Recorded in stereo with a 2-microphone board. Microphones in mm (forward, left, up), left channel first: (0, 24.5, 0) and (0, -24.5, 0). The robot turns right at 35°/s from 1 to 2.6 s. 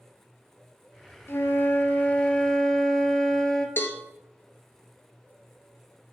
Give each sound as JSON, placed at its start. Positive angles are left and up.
{"t": 1.3, "sound": "a flute", "azimuth_deg": 120, "distance_m": 0.5}
{"t": 3.8, "sound": "a cowbell", "side_deg": 45, "distance_m": 0.6}